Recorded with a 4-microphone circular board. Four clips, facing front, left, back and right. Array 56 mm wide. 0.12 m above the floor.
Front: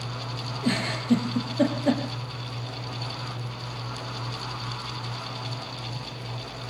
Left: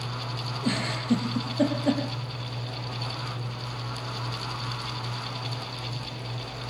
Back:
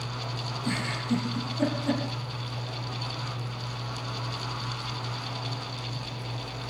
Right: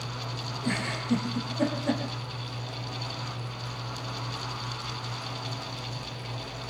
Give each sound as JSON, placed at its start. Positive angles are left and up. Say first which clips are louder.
{"t": 0.6, "sound": "a giggle", "louder": "left 3 dB, front 6 dB", "azimuth_deg": 35, "distance_m": 5.0}